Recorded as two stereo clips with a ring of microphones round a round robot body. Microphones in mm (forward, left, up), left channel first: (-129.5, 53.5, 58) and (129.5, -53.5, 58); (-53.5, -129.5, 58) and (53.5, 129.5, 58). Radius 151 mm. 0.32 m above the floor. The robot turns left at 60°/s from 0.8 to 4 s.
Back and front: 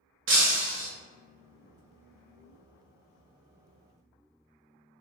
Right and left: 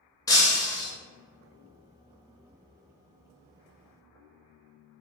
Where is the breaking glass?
40° right, 0.8 m; by 0.9 s 45° right, 0.8 m.